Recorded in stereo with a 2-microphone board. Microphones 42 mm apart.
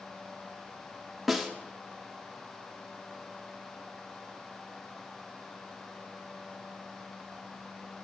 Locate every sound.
1.3 s a snare drum: 5° right (ahead or behind), 1.3 m